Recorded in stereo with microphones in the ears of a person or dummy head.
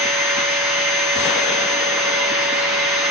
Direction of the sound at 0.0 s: 5° right (ahead or behind).